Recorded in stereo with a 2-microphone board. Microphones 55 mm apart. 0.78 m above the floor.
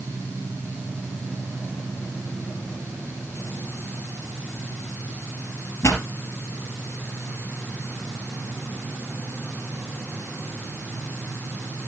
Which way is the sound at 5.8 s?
60° left (ahead or behind).